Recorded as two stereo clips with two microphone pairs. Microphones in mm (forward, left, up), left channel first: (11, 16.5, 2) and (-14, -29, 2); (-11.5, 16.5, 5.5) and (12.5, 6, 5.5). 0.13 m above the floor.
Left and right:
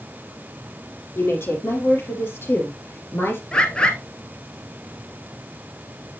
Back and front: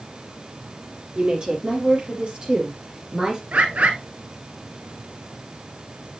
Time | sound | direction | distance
1.1 | a woman speaking | 30° left | 4.5 m
3.5 | a bird | 5° right | 1.4 m